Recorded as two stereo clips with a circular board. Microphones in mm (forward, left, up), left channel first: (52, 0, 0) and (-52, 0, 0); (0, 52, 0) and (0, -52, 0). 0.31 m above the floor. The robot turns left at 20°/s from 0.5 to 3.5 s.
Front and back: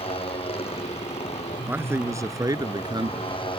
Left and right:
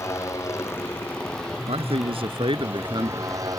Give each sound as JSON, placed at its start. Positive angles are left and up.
{"t": 0.0, "sound": "a motorcycle", "azimuth_deg": 25}
{"t": 1.7, "sound": "a man speaking", "azimuth_deg": -110}